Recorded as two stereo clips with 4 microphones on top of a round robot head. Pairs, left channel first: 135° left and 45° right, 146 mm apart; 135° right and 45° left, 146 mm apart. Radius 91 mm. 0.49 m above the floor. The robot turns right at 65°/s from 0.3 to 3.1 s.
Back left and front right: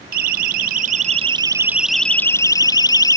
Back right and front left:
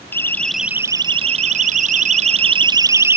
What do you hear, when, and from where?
0.1 s a siren: 60° right; by 3.2 s 95° left